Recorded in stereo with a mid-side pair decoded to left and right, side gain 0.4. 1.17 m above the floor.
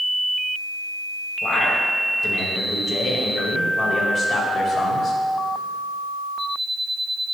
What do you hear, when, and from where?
1.4 s a man speaking: 30° left, 5.5 m; by 5.2 s 60° left, 4.5 m